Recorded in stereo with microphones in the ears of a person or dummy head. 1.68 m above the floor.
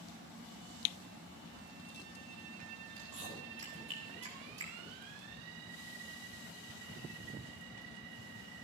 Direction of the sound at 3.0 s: 35° right (ahead or behind).